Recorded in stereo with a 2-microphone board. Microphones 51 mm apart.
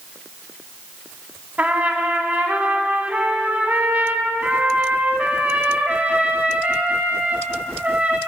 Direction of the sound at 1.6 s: 30° right (ahead or behind).